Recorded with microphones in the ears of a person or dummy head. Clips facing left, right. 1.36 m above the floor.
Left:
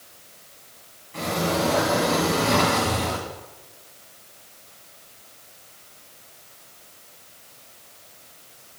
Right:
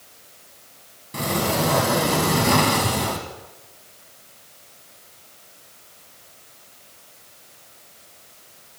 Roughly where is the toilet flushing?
I don't hear a toilet flushing.